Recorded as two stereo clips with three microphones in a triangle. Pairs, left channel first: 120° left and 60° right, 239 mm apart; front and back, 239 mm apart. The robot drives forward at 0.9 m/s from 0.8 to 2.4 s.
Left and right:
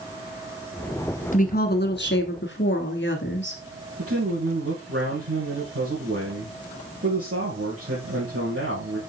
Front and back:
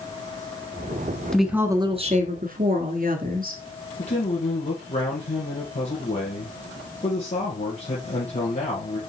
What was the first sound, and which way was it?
A woman speaking, 85° left.